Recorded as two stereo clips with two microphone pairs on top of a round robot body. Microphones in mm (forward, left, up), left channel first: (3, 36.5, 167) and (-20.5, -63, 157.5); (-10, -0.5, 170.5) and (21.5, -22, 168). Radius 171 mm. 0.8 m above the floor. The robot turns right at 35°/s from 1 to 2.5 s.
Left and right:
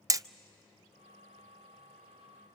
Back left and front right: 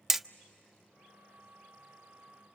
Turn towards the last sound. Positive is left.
turn(degrees=-55)